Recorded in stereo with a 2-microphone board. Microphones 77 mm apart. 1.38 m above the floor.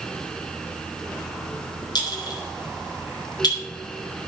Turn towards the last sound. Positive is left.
turn(degrees=60)  # may be behind; listen again after turning